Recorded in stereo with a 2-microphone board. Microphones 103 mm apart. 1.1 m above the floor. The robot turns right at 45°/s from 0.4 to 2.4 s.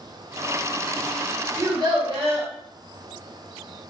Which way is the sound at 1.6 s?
150° right.